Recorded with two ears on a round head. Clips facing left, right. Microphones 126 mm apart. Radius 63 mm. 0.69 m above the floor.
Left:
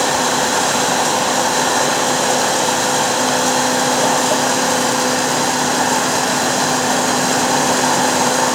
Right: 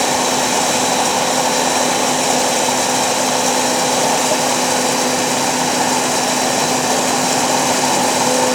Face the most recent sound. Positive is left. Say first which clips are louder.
# even
turn(degrees=-20)  # may be behind; listen again after turning